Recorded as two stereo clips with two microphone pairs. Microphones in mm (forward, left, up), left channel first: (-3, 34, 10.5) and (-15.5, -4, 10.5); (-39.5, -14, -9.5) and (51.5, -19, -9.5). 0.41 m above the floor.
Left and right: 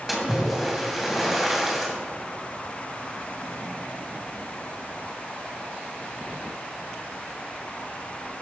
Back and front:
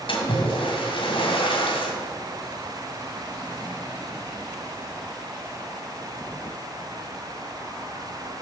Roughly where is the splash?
Behind.